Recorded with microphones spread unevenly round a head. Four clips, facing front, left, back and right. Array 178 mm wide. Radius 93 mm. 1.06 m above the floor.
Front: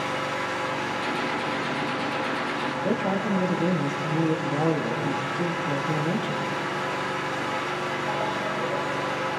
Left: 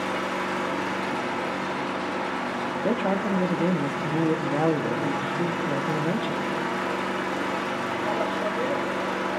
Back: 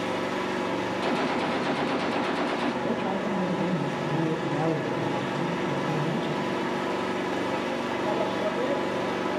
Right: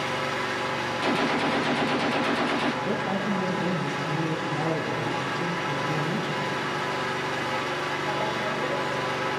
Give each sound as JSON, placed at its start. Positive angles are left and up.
{"t": 0.0, "sound": "an engine running", "azimuth_deg": 145, "distance_m": 1.3}
{"t": 1.0, "sound": "a gunshot", "azimuth_deg": -110, "distance_m": 0.6}
{"t": 2.8, "sound": "a man speaking", "azimuth_deg": 60, "distance_m": 1.3}